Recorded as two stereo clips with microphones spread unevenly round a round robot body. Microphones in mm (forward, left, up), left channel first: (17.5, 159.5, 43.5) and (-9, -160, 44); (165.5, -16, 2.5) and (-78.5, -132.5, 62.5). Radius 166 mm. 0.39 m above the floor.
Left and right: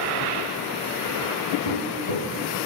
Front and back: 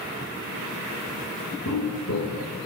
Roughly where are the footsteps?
Left.